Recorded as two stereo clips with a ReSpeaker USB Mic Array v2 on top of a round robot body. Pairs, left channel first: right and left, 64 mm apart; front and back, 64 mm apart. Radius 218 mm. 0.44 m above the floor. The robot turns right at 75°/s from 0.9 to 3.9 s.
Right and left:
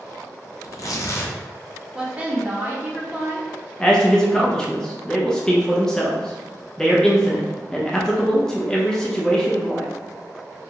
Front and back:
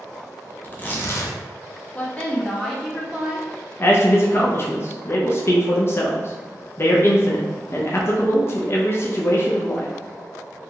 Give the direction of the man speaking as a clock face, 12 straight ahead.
1 o'clock.